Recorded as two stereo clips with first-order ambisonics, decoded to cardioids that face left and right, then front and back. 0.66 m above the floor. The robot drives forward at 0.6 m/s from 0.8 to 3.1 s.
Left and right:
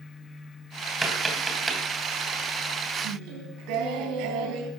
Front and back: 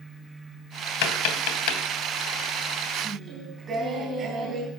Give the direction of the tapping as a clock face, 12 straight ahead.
12 o'clock.